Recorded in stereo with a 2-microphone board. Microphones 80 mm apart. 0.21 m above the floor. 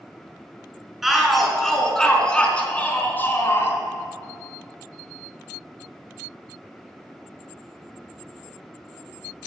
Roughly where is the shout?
Centre.